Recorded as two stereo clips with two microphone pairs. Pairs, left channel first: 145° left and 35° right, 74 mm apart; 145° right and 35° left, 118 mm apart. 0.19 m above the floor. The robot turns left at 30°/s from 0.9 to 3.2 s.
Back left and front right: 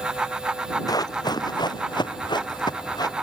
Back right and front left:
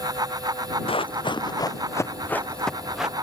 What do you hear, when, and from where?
0.9 s running footsteps: 175° left; by 3.1 s 120° left